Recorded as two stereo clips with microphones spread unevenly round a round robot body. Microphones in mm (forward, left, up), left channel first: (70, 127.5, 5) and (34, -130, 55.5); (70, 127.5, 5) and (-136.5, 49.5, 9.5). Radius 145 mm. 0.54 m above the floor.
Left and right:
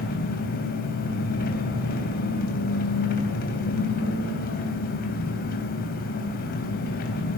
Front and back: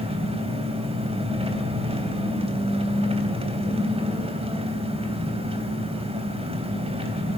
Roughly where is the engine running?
Behind left.